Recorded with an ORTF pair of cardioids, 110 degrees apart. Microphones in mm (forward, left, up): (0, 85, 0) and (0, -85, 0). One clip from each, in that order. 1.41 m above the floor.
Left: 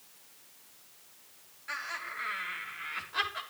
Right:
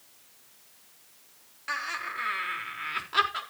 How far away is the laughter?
About 5.5 m.